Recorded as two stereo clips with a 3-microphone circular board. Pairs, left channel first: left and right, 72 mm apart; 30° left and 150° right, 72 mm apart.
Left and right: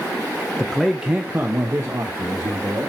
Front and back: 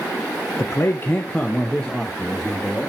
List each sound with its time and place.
0.6 s a man speaking: 20° left, 0.8 m; by 2.9 s 60° right, 2 m